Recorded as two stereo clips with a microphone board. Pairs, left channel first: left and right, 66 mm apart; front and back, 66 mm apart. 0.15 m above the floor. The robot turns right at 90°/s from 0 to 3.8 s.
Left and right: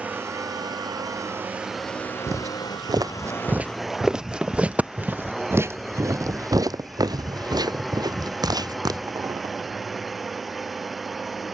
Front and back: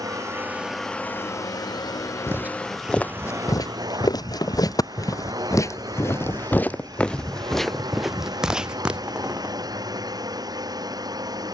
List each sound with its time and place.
0.0 s a drone: 160° right; by 11.6 s straight behind
2.3 s footsteps: 130° right; by 9.6 s 110° right